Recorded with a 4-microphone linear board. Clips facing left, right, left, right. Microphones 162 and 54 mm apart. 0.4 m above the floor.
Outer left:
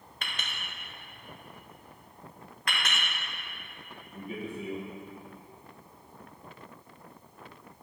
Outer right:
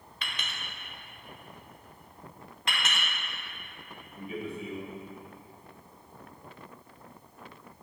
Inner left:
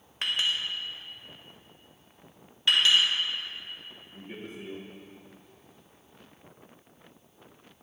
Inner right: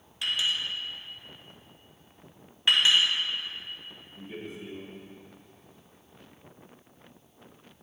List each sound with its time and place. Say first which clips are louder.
0.2 s a clink: even, even; 50° left (ahead or behind), 1.0 m
2.7 s a clink: even, even; 25° right (ahead or behind), 1.8 m
4.1 s a man speaking: outer right 1 dB, inner right 1 dB; 45° left (ahead or behind), 1.9 m